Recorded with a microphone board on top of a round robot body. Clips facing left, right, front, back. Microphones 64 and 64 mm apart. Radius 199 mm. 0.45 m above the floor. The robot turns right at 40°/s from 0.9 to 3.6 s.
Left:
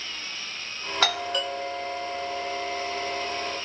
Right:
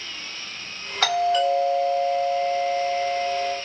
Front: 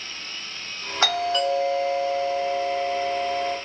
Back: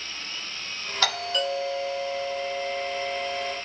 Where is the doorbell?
5° right, 2.0 m; by 3.5 s 100° left, 2.0 m.